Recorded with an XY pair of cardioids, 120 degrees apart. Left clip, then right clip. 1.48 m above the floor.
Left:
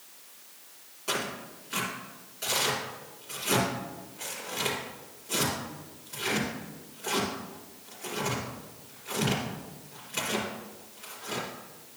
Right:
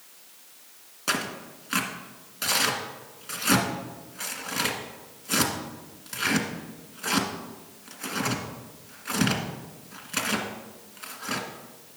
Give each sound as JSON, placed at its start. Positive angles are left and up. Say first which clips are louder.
{"t": 1.1, "sound": "tearing paper", "louder": "right 3 dB", "azimuth_deg": -70, "distance_m": 1.9}